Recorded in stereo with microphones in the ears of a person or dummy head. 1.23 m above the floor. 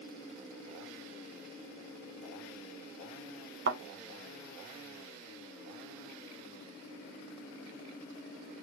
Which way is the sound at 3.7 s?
55° right (ahead or behind).